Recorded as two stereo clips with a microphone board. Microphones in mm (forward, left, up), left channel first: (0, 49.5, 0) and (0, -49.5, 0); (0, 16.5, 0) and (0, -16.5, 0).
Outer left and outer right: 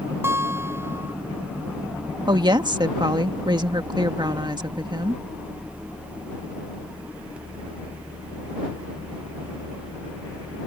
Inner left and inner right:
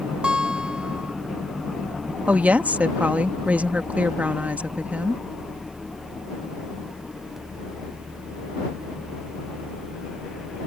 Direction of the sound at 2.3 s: 50° right (ahead or behind).